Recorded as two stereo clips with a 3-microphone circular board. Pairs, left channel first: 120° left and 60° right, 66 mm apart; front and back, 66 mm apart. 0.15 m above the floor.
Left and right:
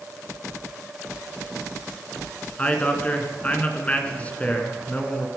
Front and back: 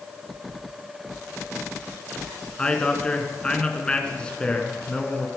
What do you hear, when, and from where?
2.6 s a man speaking: 65° left, 2 m